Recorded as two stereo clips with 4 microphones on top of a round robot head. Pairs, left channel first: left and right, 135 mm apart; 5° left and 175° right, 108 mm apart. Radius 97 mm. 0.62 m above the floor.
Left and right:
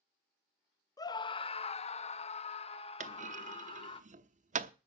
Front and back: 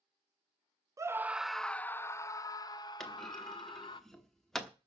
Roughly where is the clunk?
Right.